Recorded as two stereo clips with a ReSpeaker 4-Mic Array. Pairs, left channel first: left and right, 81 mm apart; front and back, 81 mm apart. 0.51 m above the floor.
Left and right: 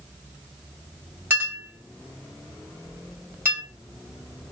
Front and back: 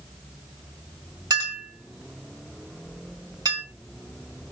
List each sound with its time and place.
1.3 s a clink: 150° right, 1.4 m